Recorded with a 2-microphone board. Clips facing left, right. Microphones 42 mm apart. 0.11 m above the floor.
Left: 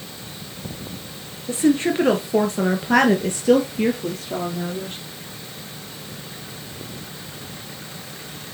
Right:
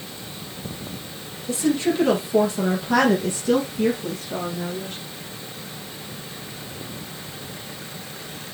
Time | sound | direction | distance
1.5 | a woman speaking | 35° left (ahead or behind) | 2.5 m